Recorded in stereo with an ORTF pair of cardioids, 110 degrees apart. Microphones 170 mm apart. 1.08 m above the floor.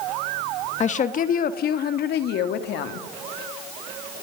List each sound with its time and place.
0.8 s a woman speaking: 40° left, 1.3 m; by 3.1 s 80° left, 2 m